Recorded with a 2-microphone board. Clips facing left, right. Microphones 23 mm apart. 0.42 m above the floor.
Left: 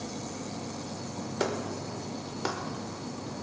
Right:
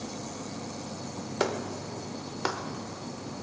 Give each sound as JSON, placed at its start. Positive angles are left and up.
{"t": 1.4, "sound": "a clap", "side_deg": -20, "distance_m": 1.1}